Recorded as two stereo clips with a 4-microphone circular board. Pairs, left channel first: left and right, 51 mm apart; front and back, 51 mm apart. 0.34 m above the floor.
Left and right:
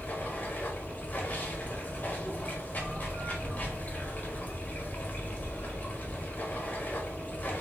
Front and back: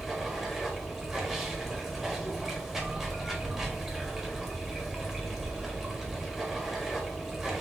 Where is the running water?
100° left, 1.1 m.